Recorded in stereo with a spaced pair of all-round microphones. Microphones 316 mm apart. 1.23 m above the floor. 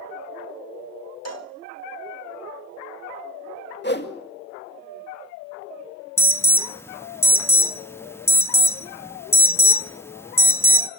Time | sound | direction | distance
1.2 | a cowbell | 55° left (ahead or behind) | 1.7 m
3.8 | a whoosh | 35° left (ahead or behind) | 2 m
6.2 | an alarm | 10° left (ahead or behind) | 0.7 m